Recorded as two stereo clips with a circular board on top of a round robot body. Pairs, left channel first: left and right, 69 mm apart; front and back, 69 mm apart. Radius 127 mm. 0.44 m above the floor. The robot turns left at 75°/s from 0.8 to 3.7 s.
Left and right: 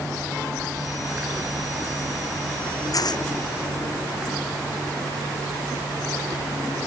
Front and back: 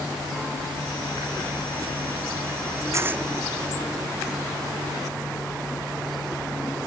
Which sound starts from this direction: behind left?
Tearing paper, at 2.9 s.